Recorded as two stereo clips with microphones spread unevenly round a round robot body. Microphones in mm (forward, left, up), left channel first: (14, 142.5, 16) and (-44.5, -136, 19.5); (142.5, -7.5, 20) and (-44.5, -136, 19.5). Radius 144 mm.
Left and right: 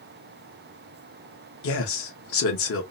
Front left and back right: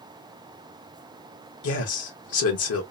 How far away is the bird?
No bird in this recording.